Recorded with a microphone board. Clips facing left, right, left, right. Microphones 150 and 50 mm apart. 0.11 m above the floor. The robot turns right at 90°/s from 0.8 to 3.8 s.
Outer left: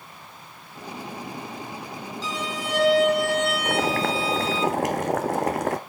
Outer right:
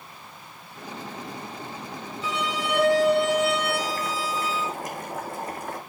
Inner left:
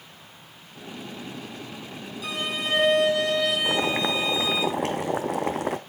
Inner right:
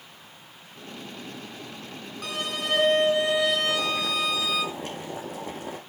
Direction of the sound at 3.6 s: 75° left (ahead or behind).